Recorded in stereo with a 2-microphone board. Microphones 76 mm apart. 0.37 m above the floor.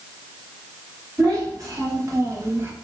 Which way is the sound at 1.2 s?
50° right (ahead or behind).